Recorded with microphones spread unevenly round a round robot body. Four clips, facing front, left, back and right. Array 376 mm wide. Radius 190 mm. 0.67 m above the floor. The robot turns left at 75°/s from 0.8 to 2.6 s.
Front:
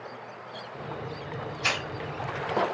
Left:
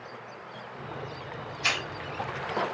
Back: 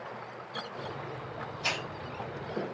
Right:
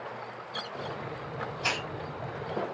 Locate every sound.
1.6 s a hiss: straight ahead, 1.0 m; by 1.9 s 15° right, 1.0 m